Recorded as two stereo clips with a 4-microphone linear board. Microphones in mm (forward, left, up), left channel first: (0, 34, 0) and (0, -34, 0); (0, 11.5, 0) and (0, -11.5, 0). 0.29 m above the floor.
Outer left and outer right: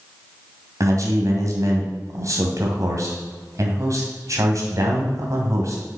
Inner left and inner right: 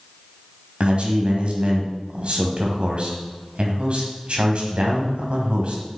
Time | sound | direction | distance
0.8 | a man speaking | 50° right (ahead or behind) | 1.8 m